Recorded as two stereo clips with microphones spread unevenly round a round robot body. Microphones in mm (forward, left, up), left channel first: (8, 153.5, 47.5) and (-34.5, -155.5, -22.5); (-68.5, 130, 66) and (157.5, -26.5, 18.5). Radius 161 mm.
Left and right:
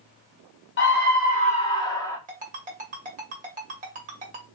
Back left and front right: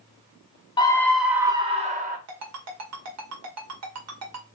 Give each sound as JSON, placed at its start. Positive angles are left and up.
{"t": 0.8, "sound": "a scream", "azimuth_deg": 70, "distance_m": 0.8}
{"t": 2.3, "sound": "a ringtone", "azimuth_deg": -40, "distance_m": 1.4}